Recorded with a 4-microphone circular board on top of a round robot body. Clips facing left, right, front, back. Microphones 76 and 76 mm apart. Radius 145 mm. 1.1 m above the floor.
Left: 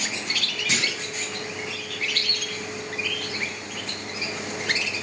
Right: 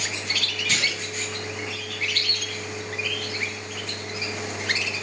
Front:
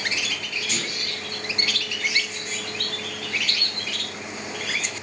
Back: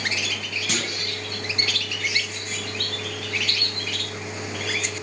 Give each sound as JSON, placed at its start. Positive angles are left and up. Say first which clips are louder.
{"t": 0.7, "sound": "a clunk", "louder": "even, back 4 dB", "azimuth_deg": 160, "distance_m": 1.3}